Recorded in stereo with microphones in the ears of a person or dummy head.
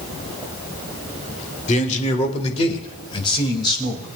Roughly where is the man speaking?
Left.